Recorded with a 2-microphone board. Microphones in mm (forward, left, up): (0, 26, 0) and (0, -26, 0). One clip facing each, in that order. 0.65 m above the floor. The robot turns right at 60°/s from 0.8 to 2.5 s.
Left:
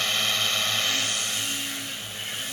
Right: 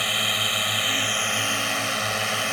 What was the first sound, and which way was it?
A drone, 165° right.